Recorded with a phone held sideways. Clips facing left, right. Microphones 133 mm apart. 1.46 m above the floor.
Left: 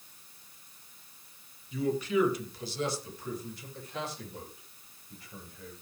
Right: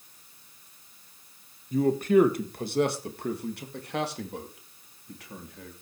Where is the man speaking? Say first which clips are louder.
Right 7 dB; 45° right (ahead or behind), 1.8 m; by 5.7 s 80° right, 3.5 m.